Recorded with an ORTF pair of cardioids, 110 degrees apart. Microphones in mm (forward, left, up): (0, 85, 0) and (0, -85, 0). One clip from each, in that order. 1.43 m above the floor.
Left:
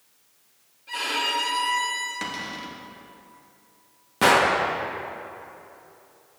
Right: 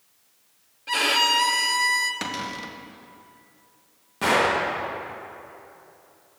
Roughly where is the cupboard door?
Ahead right.